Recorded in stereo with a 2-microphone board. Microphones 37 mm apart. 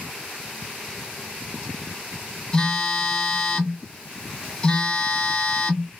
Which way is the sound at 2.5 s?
15° left (ahead or behind).